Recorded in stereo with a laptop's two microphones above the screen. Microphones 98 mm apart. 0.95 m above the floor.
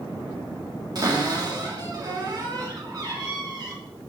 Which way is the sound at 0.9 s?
40° right (ahead or behind).